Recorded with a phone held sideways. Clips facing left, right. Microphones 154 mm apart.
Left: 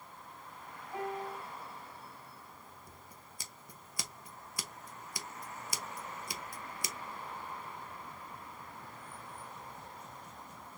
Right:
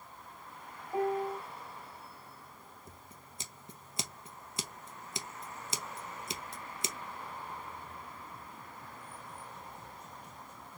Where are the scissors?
25° right (ahead or behind), 0.7 m.